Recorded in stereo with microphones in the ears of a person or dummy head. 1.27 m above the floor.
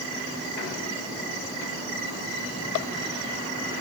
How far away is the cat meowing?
I don't hear a cat meowing.